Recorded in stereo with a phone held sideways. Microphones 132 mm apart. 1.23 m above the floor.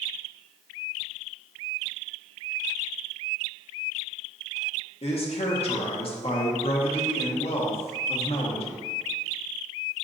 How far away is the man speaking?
About 0.9 m.